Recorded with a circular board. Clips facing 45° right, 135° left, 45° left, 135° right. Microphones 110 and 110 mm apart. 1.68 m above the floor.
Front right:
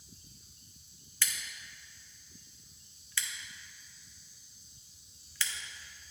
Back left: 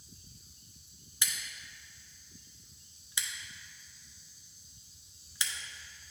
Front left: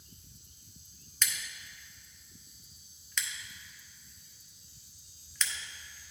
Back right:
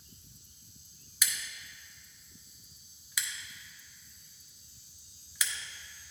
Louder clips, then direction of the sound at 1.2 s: Front right 1 dB, front left 1 dB; 160° left.